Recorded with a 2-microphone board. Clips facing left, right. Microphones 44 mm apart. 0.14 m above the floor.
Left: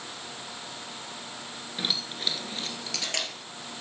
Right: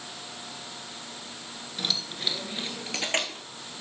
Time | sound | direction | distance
1.8 | keys jangling | 15° left (ahead or behind) | 1.5 m